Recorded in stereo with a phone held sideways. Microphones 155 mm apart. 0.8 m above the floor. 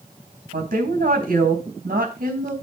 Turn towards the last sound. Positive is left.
turn(degrees=-75)  # may be behind; listen again after turning